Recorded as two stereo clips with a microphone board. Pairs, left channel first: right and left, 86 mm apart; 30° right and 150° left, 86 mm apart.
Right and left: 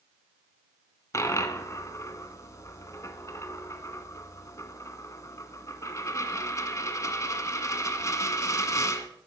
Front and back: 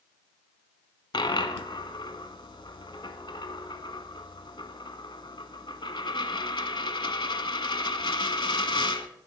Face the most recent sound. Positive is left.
turn(degrees=-40)